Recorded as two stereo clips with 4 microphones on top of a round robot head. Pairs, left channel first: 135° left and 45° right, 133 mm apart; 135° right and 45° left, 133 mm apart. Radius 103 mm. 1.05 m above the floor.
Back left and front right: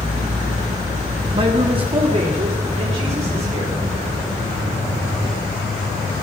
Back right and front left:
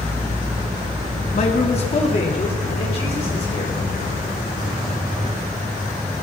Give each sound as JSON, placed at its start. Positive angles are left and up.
{"t": 1.3, "sound": "a man speaking", "azimuth_deg": -95, "distance_m": 1.3}